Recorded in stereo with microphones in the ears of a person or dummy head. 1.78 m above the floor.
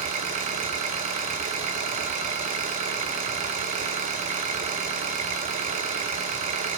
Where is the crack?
No crack in this recording.